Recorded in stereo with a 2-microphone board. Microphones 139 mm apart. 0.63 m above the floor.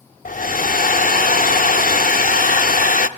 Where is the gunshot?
I don't hear a gunshot.